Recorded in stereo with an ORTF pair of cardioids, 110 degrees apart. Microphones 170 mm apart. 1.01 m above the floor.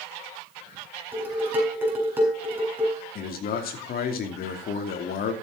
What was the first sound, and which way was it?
Dishes clattering, 10° right.